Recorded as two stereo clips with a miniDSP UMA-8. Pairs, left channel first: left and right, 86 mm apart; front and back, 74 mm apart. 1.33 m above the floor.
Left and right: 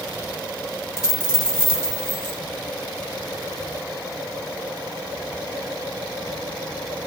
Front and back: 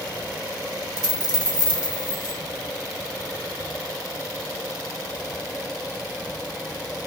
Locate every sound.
1.0 s a dropped coin: 30° left, 3 m